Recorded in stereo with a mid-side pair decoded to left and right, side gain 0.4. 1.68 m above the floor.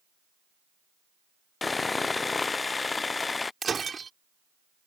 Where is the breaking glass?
35° right.